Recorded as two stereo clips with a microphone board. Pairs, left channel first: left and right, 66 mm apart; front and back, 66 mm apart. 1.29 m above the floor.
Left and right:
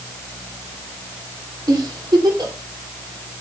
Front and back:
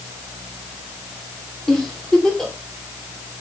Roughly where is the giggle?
Right.